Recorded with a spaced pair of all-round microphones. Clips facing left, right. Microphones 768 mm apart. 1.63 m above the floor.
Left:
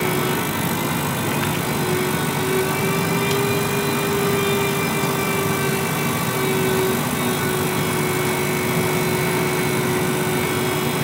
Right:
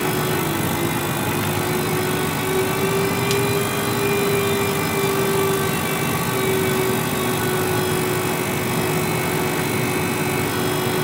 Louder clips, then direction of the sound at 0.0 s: Even; centre (ahead or behind).